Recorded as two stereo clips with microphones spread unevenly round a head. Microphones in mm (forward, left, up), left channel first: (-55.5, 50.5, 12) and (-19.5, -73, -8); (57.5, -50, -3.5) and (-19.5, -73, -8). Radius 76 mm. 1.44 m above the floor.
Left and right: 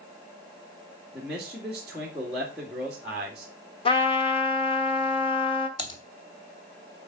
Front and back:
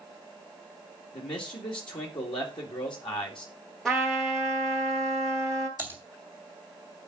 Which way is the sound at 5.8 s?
80° left.